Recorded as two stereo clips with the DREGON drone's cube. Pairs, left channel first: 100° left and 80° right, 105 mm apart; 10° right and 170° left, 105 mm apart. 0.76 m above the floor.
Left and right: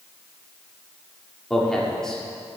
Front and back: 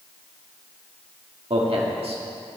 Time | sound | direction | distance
1.5 | a man speaking | 175° right | 1.5 m